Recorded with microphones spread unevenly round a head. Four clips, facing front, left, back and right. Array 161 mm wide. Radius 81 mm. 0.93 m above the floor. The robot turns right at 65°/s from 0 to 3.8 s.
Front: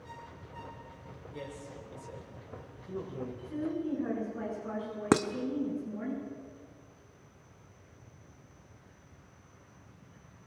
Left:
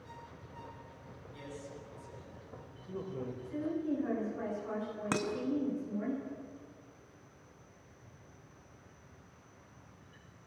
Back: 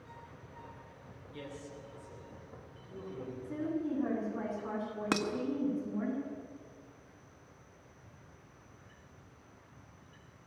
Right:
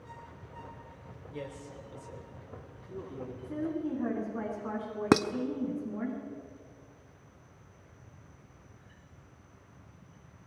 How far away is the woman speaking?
About 9 m.